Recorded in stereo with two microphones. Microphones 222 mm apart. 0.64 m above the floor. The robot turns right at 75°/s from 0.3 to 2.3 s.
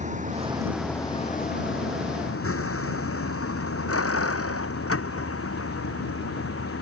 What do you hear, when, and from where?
0.0 s a vehicle: 35° right (ahead or behind); by 6.8 s 80° left